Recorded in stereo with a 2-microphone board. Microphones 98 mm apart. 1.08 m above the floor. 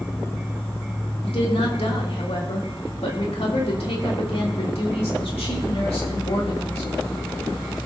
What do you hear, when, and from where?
0.0 s an insect: 30° left (ahead or behind), 2 m
1.2 s a woman speaking: 80° left, 2.5 m